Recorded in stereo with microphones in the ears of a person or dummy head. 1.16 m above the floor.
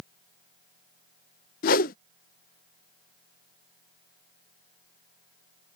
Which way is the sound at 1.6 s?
55° left (ahead or behind).